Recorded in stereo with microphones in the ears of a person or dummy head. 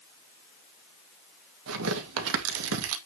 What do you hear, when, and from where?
1.7 s tearing paper: 75° right (ahead or behind), 2 m